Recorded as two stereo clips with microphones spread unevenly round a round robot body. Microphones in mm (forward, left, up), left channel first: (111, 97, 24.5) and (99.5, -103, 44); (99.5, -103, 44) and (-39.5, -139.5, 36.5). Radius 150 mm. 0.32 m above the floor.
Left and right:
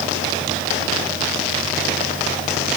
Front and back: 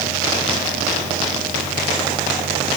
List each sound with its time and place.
Only background noise.